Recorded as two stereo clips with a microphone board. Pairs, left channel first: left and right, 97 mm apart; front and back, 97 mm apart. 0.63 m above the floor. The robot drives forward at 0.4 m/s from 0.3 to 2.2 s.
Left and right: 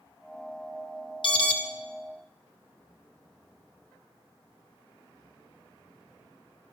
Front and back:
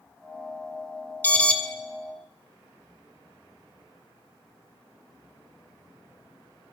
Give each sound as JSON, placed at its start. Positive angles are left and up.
{"t": 1.2, "sound": "an alarm", "azimuth_deg": 70, "distance_m": 1.2}